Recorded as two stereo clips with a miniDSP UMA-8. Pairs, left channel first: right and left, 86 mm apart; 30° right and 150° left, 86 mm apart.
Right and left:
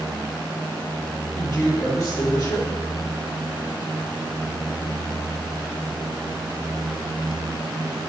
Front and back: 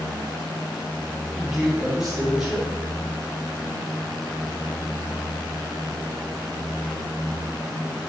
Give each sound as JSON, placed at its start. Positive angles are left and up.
{"t": 1.3, "sound": "a man speaking", "azimuth_deg": -125, "distance_m": 1.3}